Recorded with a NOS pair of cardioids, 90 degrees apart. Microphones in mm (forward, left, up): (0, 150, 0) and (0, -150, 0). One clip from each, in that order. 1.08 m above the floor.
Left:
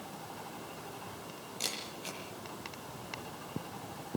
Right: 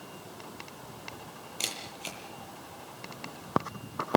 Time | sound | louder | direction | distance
1.6 | a camera shutter | right 3 dB | 55° right | 9 m